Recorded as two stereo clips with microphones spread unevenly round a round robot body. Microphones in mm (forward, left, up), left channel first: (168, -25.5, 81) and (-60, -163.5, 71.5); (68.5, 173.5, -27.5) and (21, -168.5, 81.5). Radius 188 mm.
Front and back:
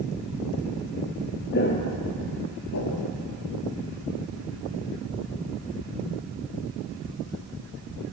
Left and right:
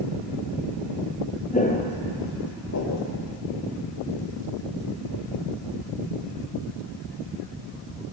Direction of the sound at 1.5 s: Straight ahead.